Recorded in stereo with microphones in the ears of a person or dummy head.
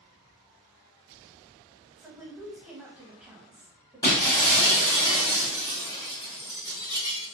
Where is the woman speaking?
5° right (ahead or behind), 0.7 m.